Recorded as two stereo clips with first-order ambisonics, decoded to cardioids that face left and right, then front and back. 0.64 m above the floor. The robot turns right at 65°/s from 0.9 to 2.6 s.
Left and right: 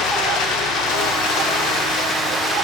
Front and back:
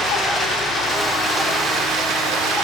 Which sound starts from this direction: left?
Running water, at 0.0 s.